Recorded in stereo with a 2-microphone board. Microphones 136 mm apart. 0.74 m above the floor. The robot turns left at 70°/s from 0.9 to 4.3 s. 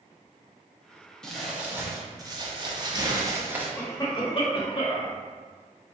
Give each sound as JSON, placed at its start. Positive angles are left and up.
{"t": 1.2, "sound": "crumpling", "azimuth_deg": 10, "distance_m": 0.7}
{"t": 3.8, "sound": "a cough", "azimuth_deg": 165, "distance_m": 1.0}